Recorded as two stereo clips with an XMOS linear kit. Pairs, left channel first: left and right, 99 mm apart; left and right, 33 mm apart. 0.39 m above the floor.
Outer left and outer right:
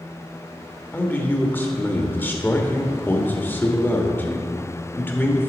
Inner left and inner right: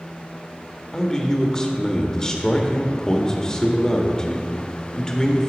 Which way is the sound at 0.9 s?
20° left (ahead or behind).